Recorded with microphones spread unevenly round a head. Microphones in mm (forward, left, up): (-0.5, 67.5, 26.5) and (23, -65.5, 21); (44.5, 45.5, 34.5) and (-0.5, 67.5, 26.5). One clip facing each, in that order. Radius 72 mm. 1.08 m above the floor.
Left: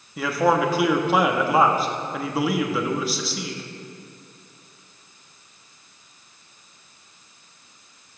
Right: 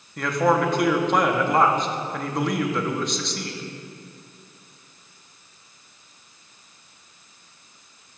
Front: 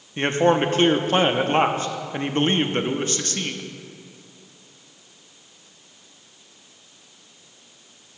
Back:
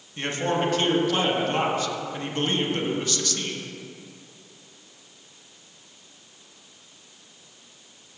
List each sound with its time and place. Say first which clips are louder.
0.2 s a man speaking: even, front 7 dB; 15° left, 0.7 m